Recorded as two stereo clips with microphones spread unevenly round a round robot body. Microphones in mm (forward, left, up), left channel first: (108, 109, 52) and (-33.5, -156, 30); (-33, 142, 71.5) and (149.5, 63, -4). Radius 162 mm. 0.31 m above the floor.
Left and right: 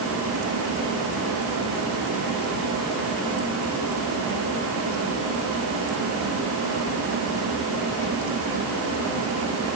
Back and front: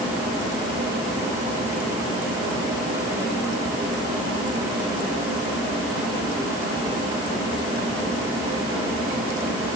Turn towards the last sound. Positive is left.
No sound to turn to.